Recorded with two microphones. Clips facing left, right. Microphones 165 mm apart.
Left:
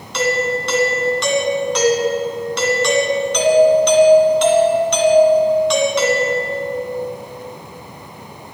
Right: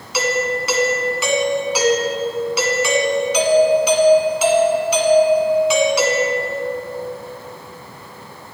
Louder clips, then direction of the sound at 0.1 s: Left 1 dB; 5° right (ahead or behind).